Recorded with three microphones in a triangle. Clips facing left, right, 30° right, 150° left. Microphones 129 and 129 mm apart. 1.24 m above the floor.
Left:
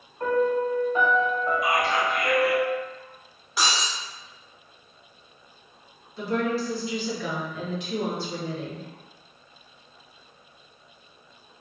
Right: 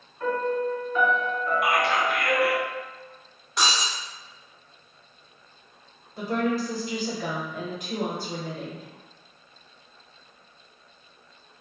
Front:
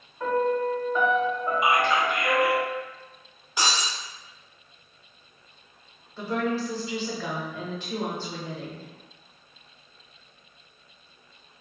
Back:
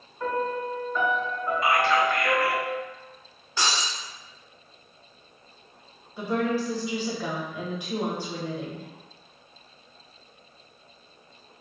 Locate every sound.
0.2 s a piano: 40° left, 1.3 m
1.6 s whispering: 105° right, 0.6 m
3.6 s breaking glass: 10° left, 0.9 m
6.2 s a woman speaking: 130° right, 1.0 m